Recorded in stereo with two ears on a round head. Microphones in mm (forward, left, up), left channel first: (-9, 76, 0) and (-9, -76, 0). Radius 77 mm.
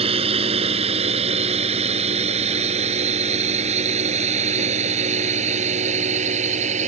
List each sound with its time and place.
0.0 s a drone: 35° right (ahead or behind); by 6.9 s 45° right (ahead or behind)